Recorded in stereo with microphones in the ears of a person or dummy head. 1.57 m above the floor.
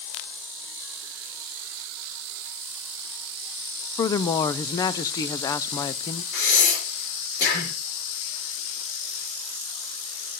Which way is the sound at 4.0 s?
25° left (ahead or behind).